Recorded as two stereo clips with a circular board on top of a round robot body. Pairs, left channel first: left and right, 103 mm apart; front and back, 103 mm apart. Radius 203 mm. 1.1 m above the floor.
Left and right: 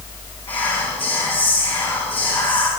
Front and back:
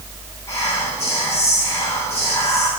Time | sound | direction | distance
0.5 | whispering | 60° left | 3 m